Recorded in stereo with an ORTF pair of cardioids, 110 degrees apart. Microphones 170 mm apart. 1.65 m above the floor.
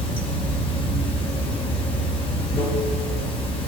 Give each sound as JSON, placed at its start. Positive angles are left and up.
{"t": 0.0, "sound": "running water", "azimuth_deg": 35, "distance_m": 1.6}